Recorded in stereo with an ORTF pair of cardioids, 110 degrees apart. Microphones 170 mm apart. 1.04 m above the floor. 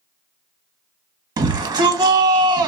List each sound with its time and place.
1.4 s a shout: 25° right, 1.2 m